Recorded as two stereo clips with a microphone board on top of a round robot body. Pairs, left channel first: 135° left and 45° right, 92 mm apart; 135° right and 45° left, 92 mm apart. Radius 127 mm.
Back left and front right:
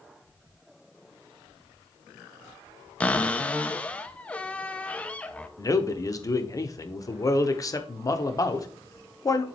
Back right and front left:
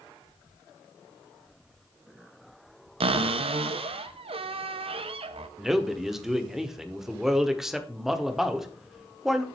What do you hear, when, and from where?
3.0 s a cupboard door: 60° left, 0.6 m
5.6 s a man speaking: 130° left, 1.2 m